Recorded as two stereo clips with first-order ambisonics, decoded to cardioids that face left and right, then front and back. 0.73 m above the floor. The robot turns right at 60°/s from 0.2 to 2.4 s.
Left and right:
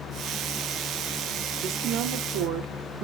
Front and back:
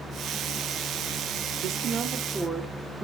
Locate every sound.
1.6 s a woman speaking: 145° right, 1.4 m; by 3.0 s 95° right, 1.4 m